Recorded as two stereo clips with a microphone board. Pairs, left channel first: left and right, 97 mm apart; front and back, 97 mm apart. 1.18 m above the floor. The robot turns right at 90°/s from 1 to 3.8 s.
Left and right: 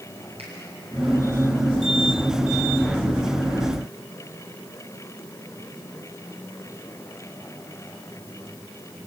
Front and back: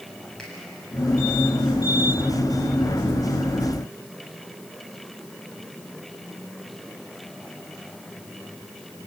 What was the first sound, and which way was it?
A finger snap, 85° right.